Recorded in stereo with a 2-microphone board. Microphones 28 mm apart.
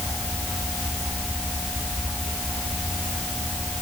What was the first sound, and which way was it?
Only background noise.